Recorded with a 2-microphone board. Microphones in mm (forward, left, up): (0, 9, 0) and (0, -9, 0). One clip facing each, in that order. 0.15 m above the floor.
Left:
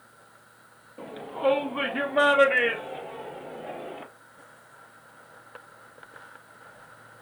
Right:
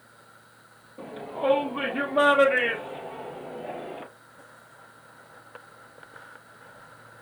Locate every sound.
1.0 s a shout: 10° left (ahead or behind), 3.5 m; by 4.0 s 10° right (ahead or behind), 2.5 m